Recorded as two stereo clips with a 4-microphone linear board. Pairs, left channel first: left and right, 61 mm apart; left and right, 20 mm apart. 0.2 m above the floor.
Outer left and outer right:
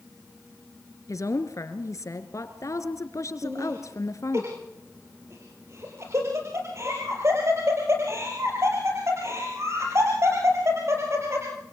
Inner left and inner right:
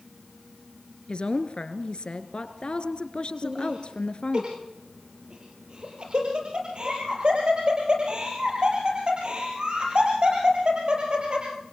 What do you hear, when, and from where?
1.1 s a woman speaking: 55° left (ahead or behind), 2.5 m
3.4 s laughter: 45° right (ahead or behind), 5.5 m